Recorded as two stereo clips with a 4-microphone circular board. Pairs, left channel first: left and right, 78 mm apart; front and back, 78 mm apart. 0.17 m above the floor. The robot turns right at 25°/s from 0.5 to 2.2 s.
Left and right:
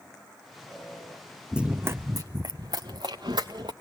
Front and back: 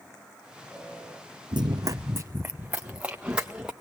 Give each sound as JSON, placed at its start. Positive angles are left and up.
{"t": 1.5, "sound": "running footsteps", "azimuth_deg": -170, "distance_m": 0.6}